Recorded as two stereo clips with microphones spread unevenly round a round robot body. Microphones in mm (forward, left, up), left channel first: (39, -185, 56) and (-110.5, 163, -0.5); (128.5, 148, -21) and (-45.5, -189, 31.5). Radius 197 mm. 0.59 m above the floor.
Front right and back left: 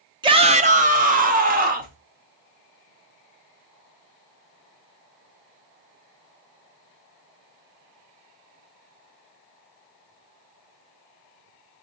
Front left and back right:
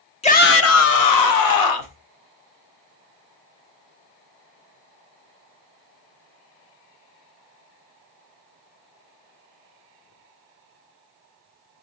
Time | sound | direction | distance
0.2 | a shout | 80° left | 0.7 m